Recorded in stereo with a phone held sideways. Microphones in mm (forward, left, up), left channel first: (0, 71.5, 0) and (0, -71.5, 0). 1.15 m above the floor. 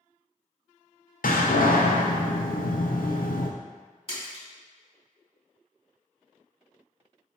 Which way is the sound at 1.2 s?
80° left.